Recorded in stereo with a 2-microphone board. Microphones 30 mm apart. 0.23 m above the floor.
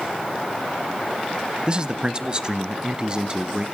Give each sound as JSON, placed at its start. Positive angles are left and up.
{"t": 1.7, "sound": "a man speaking", "side_deg": -30, "distance_m": 1.0}